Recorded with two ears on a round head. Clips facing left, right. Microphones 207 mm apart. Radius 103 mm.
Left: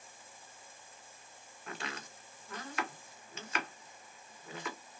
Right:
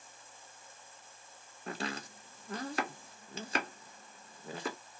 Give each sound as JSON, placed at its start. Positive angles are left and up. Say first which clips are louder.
{"t": 1.7, "sound": "chopping", "louder": "right 5 dB", "side_deg": -30, "distance_m": 0.6}